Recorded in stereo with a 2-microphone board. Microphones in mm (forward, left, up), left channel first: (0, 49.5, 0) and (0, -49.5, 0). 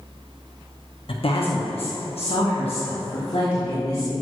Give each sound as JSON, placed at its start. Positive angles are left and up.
{"t": 1.1, "sound": "a woman speaking", "side_deg": 65, "distance_m": 0.9}